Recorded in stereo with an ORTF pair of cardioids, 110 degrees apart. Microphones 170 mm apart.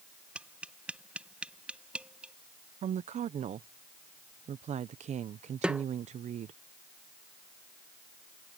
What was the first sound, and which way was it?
Tapping, 5° right.